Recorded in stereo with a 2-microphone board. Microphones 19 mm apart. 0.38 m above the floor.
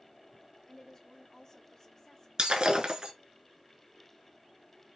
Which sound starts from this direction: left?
A woman speaking, at 0.7 s.